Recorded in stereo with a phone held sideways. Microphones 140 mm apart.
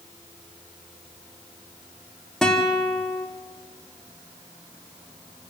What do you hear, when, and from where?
2.4 s a guitar: 5° left (ahead or behind), 1.9 m